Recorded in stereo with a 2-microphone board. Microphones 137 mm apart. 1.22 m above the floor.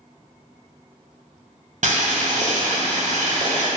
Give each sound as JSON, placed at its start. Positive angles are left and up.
{"t": 1.8, "sound": "boiling", "side_deg": -60, "distance_m": 0.8}